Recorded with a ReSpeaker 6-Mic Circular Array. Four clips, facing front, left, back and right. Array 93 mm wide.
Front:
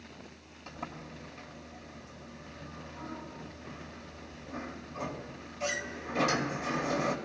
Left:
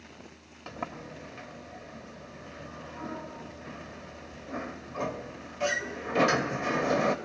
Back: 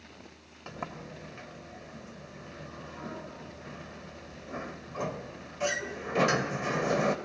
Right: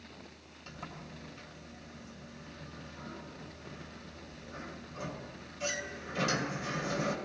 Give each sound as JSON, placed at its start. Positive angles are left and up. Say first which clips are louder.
{"t": 0.7, "sound": "a sliding door", "louder": "left 8 dB, back 3 dB", "azimuth_deg": 125, "distance_m": 0.8}